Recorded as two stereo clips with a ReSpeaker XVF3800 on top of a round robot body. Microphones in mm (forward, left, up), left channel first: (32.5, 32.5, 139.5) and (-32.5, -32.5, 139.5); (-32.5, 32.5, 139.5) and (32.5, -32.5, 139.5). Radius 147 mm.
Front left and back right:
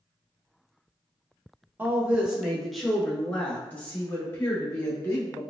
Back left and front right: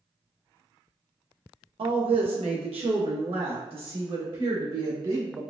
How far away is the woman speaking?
About 1.0 m.